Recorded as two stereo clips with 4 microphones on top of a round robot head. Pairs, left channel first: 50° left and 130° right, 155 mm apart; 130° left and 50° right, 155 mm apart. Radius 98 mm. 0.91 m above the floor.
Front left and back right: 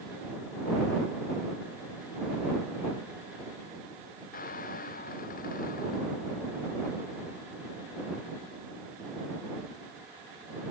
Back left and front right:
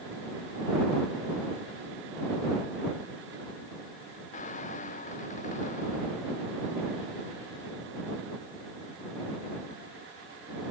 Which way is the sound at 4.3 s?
85° left.